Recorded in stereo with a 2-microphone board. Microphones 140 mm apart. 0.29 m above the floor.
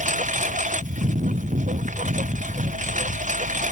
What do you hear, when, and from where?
0.0 s a lawn mower: 60° right (ahead or behind)